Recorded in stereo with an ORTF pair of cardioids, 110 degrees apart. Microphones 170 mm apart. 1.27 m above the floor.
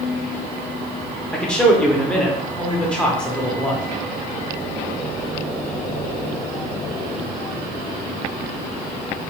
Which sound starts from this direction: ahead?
A man speaking, at 1.3 s.